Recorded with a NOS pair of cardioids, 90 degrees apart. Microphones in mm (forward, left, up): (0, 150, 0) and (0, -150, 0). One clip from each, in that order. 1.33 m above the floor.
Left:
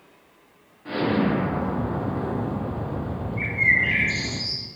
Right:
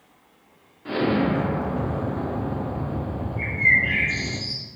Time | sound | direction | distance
0.8 | an explosion | 20° right | 0.8 m
3.4 | a bird | 60° left | 1.3 m